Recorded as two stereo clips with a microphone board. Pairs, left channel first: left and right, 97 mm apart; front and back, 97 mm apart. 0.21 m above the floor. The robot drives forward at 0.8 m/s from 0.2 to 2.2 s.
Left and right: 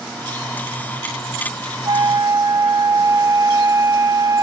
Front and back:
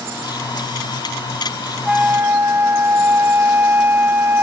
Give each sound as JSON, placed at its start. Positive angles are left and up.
{"t": 1.9, "sound": "a flute", "azimuth_deg": -100, "distance_m": 0.7}